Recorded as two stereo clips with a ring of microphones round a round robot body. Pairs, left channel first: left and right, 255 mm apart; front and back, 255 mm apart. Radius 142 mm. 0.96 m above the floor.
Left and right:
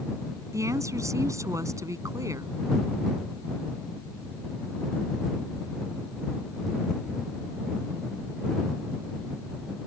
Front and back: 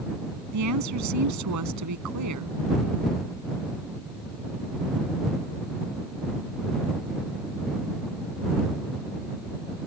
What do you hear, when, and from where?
0.5 s a woman speaking: 170° right